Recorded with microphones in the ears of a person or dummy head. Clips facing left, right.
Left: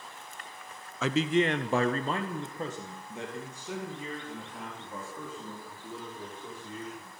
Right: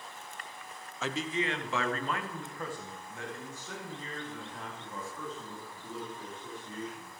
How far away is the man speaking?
About 0.5 m.